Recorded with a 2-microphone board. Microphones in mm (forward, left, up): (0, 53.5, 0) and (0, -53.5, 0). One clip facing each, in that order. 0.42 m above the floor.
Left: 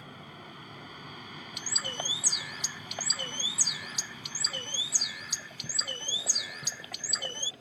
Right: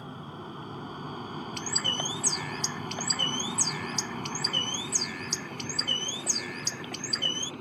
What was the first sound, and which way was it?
An aircraft, 30° right (ahead or behind).